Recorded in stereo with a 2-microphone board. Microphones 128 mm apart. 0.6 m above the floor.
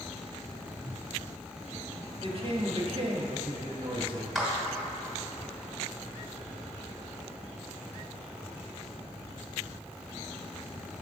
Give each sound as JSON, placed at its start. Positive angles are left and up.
{"t": 0.8, "sound": "a whoosh", "side_deg": 15, "distance_m": 1.5}
{"t": 2.2, "sound": "a woman speaking", "side_deg": -45, "distance_m": 0.8}
{"t": 4.3, "sound": "a clap", "side_deg": 0, "distance_m": 1.5}